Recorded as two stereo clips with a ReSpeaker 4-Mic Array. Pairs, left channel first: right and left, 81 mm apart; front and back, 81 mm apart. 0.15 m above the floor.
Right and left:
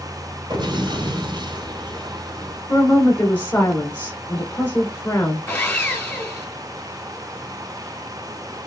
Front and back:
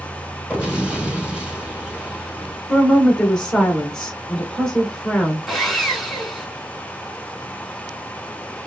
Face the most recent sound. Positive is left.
turn(degrees=-90)